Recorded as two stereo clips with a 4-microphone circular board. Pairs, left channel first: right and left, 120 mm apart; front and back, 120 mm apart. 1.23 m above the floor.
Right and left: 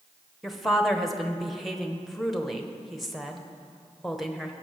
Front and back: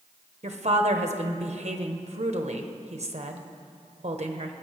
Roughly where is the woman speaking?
Behind.